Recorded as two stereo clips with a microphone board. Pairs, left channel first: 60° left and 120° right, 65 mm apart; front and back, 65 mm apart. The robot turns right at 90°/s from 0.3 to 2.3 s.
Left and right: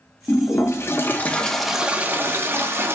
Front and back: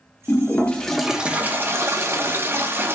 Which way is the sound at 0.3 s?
30° left.